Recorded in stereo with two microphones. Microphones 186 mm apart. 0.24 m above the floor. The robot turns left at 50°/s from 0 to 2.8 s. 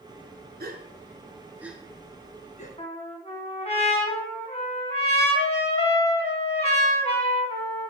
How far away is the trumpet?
About 2 m.